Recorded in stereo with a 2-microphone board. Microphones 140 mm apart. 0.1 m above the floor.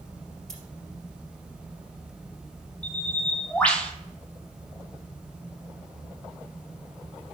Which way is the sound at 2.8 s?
10° left (ahead or behind).